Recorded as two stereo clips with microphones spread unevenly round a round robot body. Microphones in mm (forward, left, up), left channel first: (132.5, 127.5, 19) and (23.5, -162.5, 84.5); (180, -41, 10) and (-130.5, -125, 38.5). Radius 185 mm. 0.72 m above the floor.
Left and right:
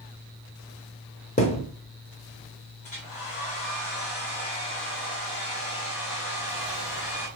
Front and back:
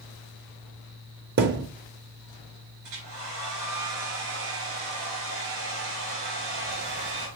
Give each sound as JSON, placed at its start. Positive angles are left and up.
{"t": 1.4, "sound": "a thud", "azimuth_deg": 145, "distance_m": 0.5}
{"t": 2.8, "sound": "a hair dryer", "azimuth_deg": 140, "distance_m": 4.0}